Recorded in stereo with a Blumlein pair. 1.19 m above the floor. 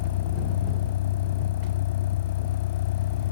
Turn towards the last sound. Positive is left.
turn(degrees=55)